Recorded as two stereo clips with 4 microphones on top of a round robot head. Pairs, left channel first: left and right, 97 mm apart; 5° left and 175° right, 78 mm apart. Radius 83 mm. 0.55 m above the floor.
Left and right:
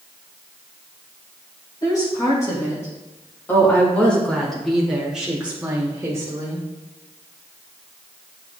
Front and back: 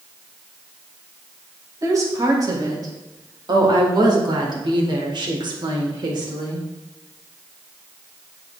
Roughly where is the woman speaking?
Behind left.